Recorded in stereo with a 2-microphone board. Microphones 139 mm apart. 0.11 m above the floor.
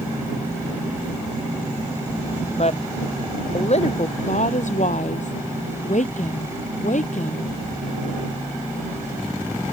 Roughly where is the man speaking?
Left.